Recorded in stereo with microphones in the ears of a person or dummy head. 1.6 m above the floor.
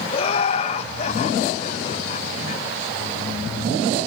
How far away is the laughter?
About 2.5 m.